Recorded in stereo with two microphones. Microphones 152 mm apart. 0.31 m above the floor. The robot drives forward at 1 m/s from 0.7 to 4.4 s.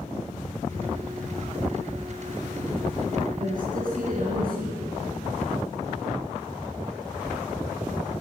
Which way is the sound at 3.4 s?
60° right (ahead or behind).